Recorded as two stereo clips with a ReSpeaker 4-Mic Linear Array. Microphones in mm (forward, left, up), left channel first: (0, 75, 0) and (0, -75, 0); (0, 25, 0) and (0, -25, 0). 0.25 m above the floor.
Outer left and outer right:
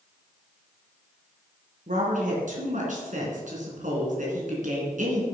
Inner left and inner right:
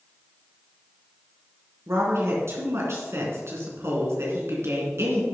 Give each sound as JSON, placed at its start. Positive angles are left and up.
{"t": 1.9, "sound": "a woman speaking", "side_deg": -60, "distance_m": 3.5}